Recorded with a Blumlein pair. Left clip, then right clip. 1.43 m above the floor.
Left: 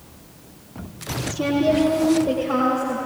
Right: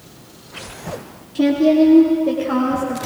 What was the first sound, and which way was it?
A woman speaking, 60° right.